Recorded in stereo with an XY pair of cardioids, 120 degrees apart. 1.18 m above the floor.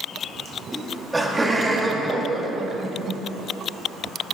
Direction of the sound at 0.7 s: 10° right.